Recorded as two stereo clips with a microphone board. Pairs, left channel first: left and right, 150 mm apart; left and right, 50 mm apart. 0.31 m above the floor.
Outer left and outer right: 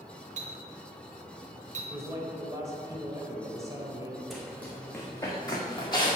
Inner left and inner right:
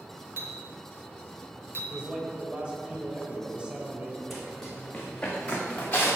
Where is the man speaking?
20° right (ahead or behind), 1.1 m.